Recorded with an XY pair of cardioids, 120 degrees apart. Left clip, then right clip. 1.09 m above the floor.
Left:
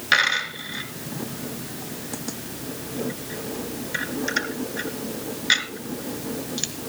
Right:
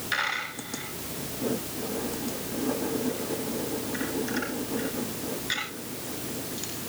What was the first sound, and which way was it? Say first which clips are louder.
A dropped coin: left 9 dB; 60° left.